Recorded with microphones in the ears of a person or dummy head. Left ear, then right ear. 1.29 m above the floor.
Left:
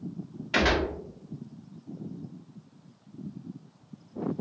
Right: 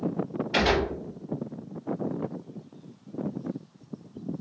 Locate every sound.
0.5 s a gunshot: 30° left (ahead or behind), 1.2 m